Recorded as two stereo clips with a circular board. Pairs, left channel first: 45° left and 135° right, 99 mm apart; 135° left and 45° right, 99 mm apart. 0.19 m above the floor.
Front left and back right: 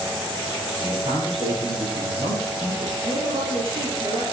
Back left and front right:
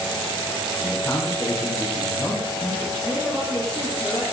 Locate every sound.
0.8 s a man speaking: 155° right, 8 m
3.0 s a woman speaking: 145° right, 5 m